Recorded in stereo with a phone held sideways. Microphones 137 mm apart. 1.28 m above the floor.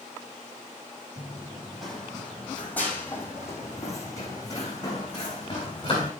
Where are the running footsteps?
10° right (ahead or behind), 3.5 m; by 6.1 s 35° left (ahead or behind), 6 m.